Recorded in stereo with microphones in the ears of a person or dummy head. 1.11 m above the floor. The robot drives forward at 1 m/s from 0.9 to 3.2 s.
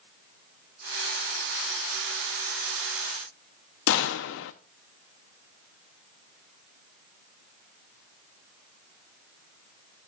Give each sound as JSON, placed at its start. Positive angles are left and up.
{"t": 3.9, "sound": "a gunshot", "side_deg": 70, "distance_m": 0.8}